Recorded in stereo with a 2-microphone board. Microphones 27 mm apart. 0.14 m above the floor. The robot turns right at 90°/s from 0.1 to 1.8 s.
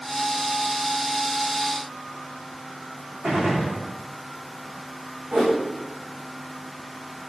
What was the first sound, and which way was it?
A gunshot, 60° right (ahead or behind).